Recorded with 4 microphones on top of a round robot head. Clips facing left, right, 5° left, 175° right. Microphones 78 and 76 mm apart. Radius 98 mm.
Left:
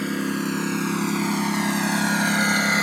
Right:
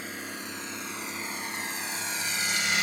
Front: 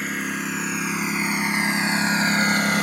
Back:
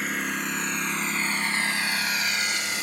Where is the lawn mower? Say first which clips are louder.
Left 14 dB, front 2 dB; 95° left; by 2.9 s 35° left.